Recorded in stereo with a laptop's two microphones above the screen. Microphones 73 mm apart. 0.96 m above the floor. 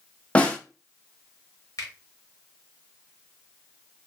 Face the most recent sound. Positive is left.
turn(degrees=55)  # may be behind; listen again after turning